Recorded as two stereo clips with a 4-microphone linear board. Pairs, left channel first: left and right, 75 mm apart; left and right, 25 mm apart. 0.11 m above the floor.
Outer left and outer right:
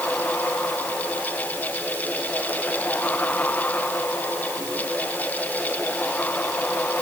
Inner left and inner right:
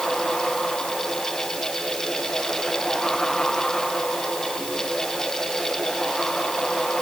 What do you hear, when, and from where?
Only background noise.